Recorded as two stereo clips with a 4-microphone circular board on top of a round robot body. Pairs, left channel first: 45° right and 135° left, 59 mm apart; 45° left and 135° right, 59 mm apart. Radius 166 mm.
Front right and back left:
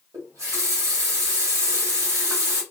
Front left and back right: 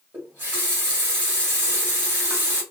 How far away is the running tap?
About 1.1 m.